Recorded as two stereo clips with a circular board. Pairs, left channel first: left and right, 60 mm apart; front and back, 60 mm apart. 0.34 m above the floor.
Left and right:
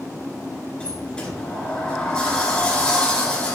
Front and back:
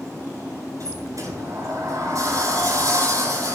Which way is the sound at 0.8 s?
165° left.